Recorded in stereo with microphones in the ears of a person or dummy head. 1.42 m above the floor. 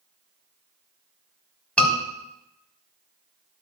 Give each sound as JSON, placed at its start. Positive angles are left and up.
{"t": 1.8, "sound": "a scream", "side_deg": 10, "distance_m": 4.0}